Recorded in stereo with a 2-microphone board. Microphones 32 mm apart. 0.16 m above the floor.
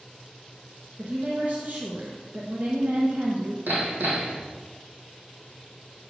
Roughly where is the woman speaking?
Right.